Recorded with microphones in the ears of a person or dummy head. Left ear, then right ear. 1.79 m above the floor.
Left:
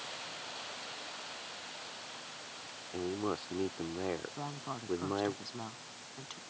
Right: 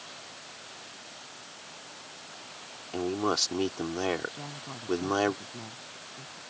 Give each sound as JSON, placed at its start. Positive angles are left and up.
{"t": 2.9, "sound": "a man speaking", "side_deg": -80}
{"t": 4.4, "sound": "a woman speaking", "side_deg": 75}